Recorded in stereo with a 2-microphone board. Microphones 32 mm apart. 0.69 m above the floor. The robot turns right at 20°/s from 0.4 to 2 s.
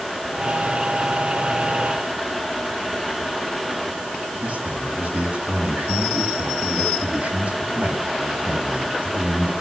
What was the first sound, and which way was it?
A man speaking, 55° right (ahead or behind).